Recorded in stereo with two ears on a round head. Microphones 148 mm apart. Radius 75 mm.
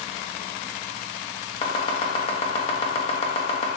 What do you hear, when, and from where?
1.6 s chopping: 35° left (ahead or behind), 0.6 m